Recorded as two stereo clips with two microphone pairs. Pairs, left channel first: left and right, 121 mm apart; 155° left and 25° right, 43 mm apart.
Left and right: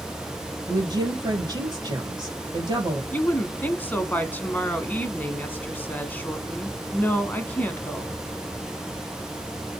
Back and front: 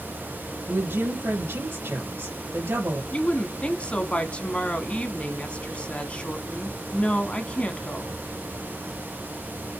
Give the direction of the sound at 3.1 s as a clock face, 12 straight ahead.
7 o'clock.